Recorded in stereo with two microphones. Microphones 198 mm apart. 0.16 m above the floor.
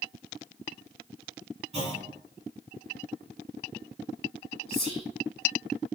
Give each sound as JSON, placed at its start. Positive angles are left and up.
{"t": 1.7, "sound": "a clunk", "side_deg": -30, "distance_m": 1.6}
{"t": 4.7, "sound": "whispering", "side_deg": 30, "distance_m": 1.1}